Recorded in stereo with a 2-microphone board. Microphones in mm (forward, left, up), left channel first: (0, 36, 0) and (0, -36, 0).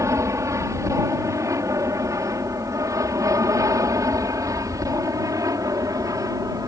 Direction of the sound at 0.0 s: 45° right (ahead or behind).